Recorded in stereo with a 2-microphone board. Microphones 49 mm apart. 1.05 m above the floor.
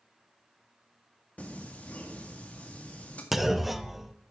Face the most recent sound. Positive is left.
turn(degrees=0)  # may be behind; listen again after turning